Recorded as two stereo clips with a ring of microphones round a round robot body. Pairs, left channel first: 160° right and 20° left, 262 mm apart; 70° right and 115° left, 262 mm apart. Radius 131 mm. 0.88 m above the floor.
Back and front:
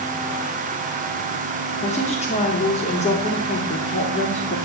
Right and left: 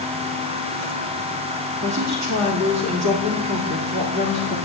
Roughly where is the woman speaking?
Behind left.